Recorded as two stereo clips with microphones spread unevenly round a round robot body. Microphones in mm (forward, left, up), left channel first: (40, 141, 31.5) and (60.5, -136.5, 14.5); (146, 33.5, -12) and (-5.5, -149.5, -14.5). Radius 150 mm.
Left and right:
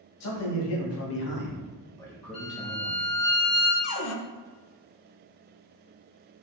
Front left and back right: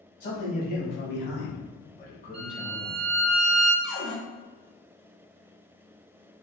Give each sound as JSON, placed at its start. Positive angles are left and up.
{"t": 0.2, "sound": "a man speaking", "azimuth_deg": 115, "distance_m": 1.5}
{"t": 2.3, "sound": "a violin", "azimuth_deg": 150, "distance_m": 1.5}
{"t": 3.8, "sound": "a cupboard door", "azimuth_deg": 100, "distance_m": 0.6}